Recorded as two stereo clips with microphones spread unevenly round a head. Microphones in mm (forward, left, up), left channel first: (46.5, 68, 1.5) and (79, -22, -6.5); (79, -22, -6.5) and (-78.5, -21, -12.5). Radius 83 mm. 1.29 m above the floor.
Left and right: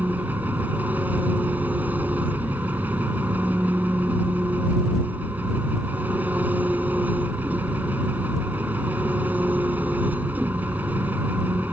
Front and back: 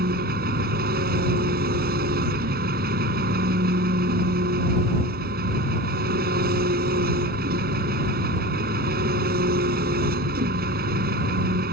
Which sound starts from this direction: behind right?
An engine running, at 0.0 s.